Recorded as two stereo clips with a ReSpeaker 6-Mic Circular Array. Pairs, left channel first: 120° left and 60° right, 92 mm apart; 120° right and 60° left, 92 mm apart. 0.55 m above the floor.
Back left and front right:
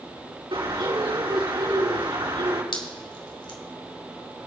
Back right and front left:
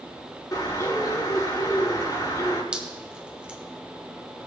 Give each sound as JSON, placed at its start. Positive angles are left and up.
{"t": 0.5, "sound": "a bird", "azimuth_deg": -75, "distance_m": 4.5}
{"t": 2.7, "sound": "dripping", "azimuth_deg": 140, "distance_m": 1.6}